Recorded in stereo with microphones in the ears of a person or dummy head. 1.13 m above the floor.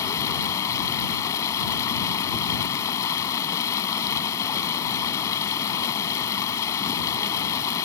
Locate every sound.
0.0 s running water: 20° left (ahead or behind)